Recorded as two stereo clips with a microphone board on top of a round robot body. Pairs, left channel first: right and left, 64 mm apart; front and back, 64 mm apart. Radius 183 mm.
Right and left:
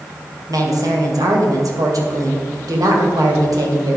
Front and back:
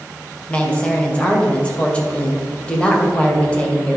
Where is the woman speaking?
75° left, 2.5 m.